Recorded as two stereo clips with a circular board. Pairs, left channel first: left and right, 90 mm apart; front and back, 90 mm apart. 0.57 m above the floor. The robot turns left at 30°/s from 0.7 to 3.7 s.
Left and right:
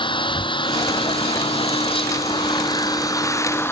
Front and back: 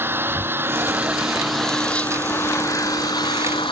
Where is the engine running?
115° left; by 3.7 s 25° left.